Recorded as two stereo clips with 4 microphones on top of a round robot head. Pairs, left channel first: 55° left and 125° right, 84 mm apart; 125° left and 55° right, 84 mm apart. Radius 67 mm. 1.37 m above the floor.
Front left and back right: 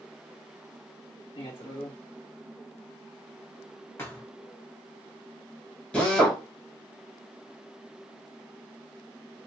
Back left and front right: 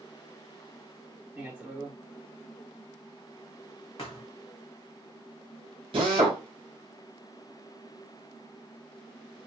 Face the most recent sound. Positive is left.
turn(degrees=-25)